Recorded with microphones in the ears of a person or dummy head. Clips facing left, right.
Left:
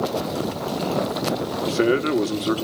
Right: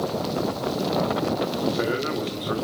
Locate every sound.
1.6 s a man speaking: 45° left (ahead or behind), 2.5 m